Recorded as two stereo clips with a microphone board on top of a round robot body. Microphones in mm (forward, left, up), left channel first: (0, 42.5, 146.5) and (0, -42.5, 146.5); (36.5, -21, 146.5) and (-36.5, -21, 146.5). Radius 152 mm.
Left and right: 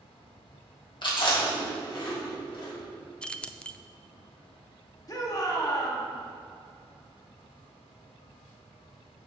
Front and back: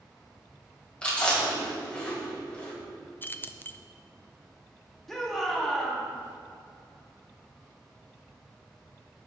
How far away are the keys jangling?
About 0.5 m.